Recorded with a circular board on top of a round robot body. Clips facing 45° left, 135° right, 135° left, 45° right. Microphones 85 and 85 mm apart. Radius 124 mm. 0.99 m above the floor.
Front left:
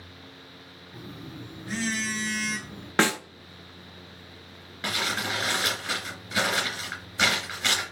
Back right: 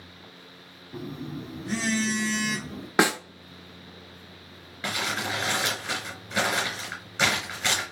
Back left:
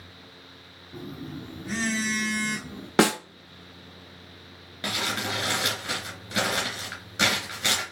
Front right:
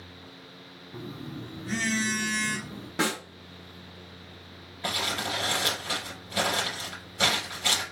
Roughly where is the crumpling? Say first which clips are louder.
Even, back left 1 dB; behind left.